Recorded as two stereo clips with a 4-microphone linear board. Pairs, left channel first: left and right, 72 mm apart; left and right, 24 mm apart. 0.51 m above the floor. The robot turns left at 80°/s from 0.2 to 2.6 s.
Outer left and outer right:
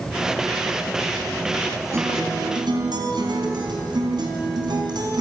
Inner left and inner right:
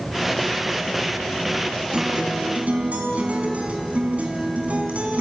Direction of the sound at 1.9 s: 40° right.